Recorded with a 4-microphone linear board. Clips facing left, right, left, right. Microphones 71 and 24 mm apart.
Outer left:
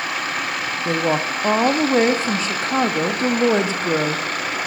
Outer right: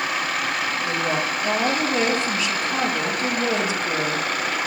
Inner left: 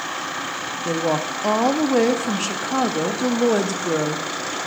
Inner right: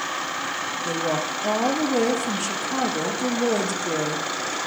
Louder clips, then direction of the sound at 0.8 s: Outer left 7 dB, inner left 4 dB; 30° left (ahead or behind).